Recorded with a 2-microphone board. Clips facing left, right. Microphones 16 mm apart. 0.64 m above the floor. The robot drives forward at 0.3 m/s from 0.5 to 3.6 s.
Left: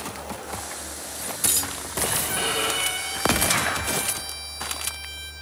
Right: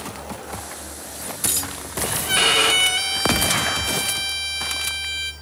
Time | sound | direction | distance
2.3 | a violin | 60° right (ahead or behind) | 1.3 m